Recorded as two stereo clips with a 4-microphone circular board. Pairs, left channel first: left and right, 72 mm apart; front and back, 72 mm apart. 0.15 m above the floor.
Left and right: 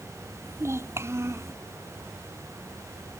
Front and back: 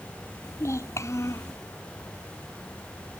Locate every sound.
0.4 s a child speaking: 45° right